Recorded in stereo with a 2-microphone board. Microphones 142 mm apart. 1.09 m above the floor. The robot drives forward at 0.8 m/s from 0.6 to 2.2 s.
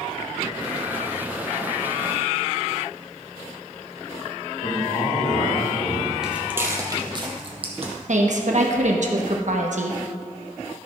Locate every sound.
4.6 s a man speaking: 65° left (ahead or behind), 2 m
6.2 s footsteps: 5° right (ahead or behind), 1.2 m; by 7.9 s 50° right (ahead or behind), 1.9 m
8.1 s a woman speaking: 60° right (ahead or behind), 1.1 m